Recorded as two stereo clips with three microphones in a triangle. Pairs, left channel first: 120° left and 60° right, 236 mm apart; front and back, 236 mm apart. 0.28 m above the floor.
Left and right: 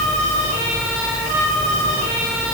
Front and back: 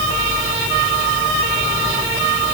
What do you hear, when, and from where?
Only background noise.